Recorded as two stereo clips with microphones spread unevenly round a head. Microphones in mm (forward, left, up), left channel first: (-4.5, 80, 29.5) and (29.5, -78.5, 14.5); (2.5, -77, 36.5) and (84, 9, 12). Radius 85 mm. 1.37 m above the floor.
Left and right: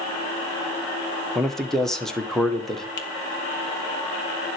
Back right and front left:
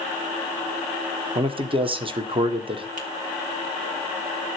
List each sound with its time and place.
1.4 s a man speaking: 15° left, 1.3 m
3.0 s a finger snap: 80° left, 1.9 m